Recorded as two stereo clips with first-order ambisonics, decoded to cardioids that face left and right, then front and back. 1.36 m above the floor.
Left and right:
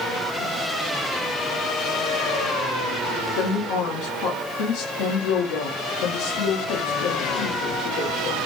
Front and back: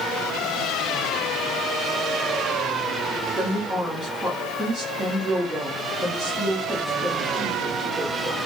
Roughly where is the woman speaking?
Left.